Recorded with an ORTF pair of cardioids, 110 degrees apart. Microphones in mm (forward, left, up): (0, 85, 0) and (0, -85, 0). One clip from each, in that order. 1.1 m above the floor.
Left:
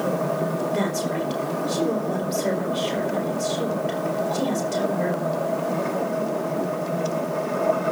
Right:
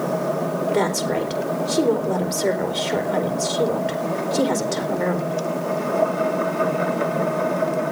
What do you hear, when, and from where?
0.7 s a woman speaking: 55° right, 4 m